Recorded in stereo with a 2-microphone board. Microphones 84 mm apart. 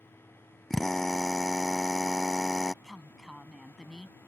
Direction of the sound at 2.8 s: Centre (ahead or behind).